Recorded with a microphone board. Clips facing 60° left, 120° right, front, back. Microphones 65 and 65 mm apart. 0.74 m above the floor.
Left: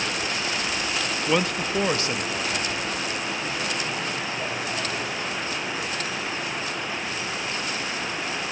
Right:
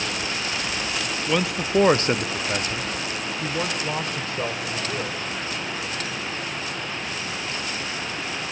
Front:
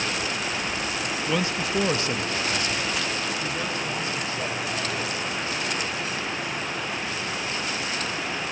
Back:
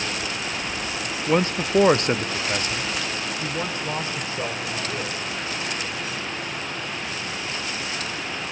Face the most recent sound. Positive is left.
turn(degrees=-115)